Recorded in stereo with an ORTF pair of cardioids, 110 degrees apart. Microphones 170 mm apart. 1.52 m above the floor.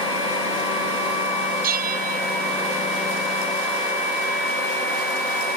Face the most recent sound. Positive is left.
turn(degrees=-55)